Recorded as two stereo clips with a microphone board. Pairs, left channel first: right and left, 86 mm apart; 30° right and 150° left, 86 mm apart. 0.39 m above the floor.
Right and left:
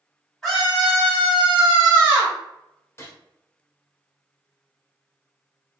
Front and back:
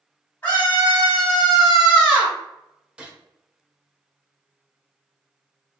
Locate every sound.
0.4 s a scream: 10° right, 1.5 m; by 2.4 s 95° left, 1.5 m
3.0 s a gunshot: 135° right, 0.6 m